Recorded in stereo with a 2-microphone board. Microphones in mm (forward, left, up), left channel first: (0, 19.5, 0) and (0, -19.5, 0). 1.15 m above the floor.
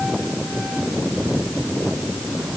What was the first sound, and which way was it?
Only background noise.